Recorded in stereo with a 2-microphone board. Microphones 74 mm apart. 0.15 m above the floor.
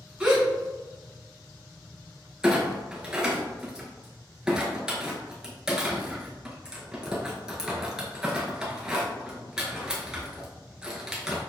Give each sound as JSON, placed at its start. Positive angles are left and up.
{"t": 0.2, "sound": "a gasp", "side_deg": -10, "distance_m": 1.7}
{"t": 2.4, "sound": "a clunk", "side_deg": -10, "distance_m": 1.1}